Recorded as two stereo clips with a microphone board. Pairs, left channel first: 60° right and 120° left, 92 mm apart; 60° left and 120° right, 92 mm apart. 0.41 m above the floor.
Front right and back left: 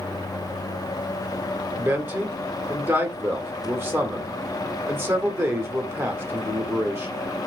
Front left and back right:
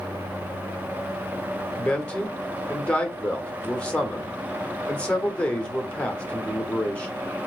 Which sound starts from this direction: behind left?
A man speaking, at 1.8 s.